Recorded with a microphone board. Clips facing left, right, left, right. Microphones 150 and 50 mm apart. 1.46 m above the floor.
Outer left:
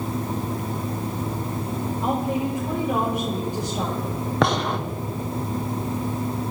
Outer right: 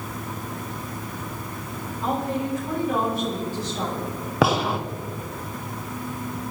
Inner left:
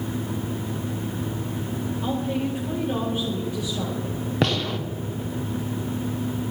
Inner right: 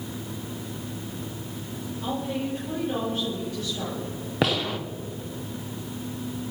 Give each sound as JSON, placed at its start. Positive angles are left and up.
{"t": 2.0, "sound": "a woman speaking", "side_deg": 20, "distance_m": 6.0}
{"t": 4.4, "sound": "a gunshot", "side_deg": -5, "distance_m": 1.1}